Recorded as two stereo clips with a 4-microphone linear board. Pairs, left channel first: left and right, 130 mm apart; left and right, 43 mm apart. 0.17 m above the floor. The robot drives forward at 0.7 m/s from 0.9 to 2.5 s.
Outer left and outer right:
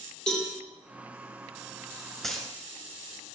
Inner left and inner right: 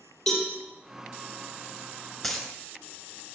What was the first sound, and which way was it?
A cowbell, 5° left (ahead or behind).